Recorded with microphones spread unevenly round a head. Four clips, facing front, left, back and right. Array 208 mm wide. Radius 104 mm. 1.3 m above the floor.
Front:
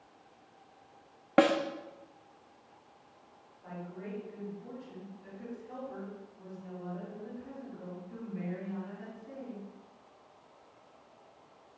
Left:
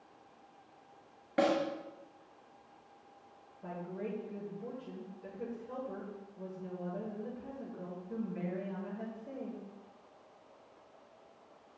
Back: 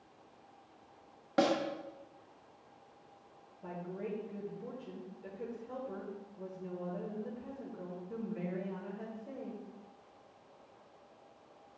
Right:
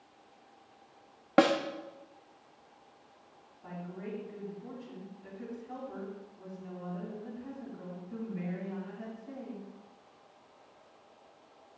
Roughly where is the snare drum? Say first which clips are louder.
Right 5 dB, front 5 dB; ahead right.